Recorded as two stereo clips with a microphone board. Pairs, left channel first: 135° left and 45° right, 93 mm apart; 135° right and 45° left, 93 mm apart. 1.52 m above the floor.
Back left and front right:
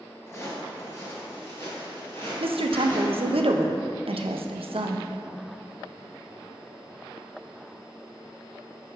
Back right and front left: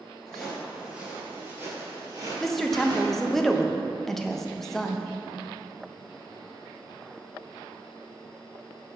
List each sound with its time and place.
0.3 s footsteps: 145° left, 1.6 m; by 3.4 s 70° left, 2.5 m
2.4 s a woman speaking: 50° right, 0.5 m